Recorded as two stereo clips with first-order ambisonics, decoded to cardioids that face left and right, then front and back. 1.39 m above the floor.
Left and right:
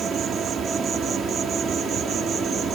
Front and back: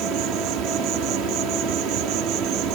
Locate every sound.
0.0 s an insect: 150° right